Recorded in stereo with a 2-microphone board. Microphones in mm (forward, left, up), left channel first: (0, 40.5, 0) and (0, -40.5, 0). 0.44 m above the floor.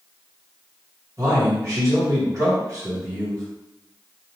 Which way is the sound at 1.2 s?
40° right (ahead or behind).